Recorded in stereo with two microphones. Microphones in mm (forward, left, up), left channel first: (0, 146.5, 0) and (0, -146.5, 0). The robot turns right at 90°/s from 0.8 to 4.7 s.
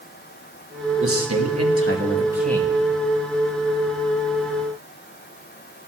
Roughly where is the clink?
No clink in this recording.